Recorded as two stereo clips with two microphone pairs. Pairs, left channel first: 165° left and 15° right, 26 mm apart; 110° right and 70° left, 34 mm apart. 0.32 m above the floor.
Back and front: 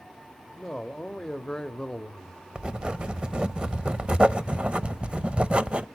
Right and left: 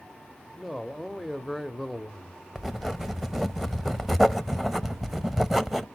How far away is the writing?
About 0.6 m.